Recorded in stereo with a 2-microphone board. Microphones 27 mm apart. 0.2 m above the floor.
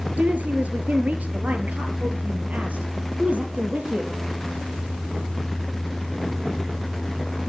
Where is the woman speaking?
70° right (ahead or behind), 3.5 m; by 4.1 s 55° right (ahead or behind), 5 m.